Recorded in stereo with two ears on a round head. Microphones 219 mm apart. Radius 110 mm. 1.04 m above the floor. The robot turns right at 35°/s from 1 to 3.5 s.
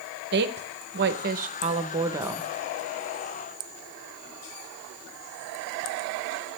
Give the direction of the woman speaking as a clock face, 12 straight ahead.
2 o'clock.